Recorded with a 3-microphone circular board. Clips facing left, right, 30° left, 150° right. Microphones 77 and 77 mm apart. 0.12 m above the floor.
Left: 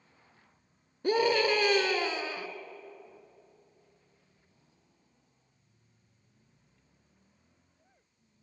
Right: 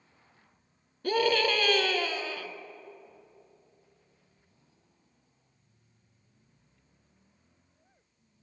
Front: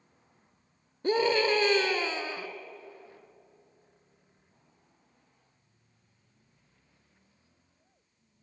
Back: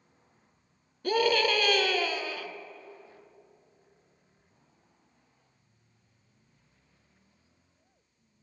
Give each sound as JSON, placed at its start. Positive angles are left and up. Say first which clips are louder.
{"t": 1.0, "sound": "a scream", "louder": "even, even", "azimuth_deg": 55, "distance_m": 1.2}